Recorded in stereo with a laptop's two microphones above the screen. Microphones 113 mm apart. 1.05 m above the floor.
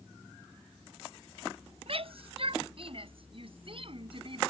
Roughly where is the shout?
Right.